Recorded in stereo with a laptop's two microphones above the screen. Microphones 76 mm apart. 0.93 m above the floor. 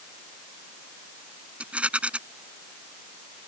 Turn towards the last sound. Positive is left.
turn(degrees=-15)  # may be behind; listen again after turning